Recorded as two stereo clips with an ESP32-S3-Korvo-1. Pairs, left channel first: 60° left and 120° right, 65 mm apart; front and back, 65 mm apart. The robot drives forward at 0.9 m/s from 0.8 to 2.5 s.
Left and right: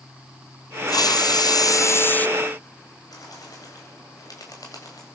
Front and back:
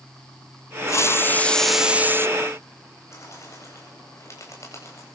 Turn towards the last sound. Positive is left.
turn(degrees=45)